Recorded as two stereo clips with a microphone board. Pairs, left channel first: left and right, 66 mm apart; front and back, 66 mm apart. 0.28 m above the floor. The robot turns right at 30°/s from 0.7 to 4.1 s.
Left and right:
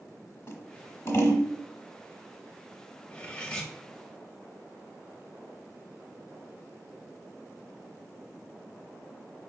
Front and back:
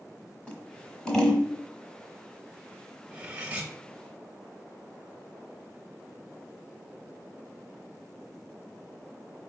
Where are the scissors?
65° left, 1.0 m; by 1.5 s 90° left, 1.0 m.